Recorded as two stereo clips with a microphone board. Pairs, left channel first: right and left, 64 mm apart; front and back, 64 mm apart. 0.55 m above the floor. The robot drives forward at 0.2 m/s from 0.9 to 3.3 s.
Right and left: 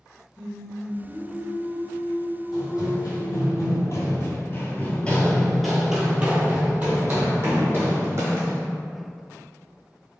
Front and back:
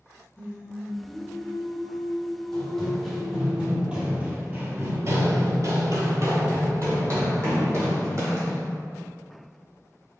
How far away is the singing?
About 1.0 m.